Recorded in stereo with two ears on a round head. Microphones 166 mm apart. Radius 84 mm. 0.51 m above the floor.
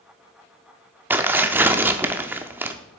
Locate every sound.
1.1 s tearing paper: 10° right (ahead or behind), 0.6 m